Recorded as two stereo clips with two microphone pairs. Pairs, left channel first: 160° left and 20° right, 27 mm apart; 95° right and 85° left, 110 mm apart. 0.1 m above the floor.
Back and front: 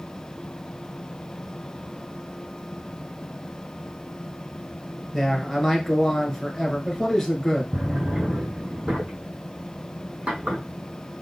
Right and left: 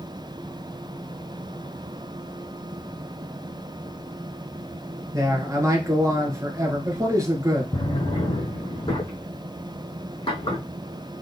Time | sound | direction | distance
5.1 | a man speaking | 105° left | 1.6 m
7.7 | a drawer | 65° right | 2 m